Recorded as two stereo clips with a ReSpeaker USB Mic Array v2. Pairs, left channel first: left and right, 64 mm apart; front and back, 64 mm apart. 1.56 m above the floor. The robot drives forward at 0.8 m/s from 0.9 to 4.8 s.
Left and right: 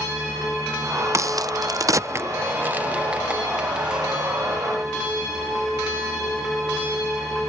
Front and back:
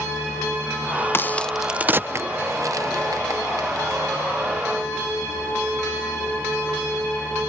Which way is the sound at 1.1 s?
50° right.